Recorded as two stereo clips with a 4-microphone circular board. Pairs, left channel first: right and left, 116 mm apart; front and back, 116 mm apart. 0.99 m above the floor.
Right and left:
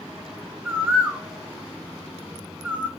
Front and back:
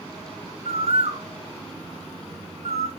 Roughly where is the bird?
Behind.